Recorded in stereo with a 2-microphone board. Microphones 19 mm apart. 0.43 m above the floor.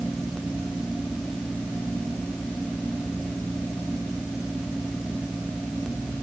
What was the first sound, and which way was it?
Only background noise.